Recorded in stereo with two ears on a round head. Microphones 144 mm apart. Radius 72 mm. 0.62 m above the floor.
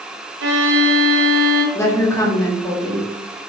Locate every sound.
0.4 s a violin: 80° right, 0.6 m
1.8 s a woman speaking: 20° left (ahead or behind), 1.2 m